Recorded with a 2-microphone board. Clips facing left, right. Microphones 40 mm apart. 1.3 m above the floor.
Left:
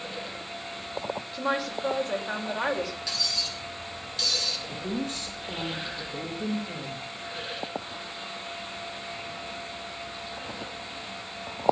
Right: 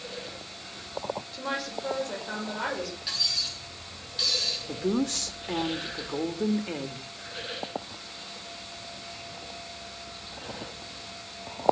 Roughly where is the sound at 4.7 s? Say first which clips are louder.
Right 4 dB; right.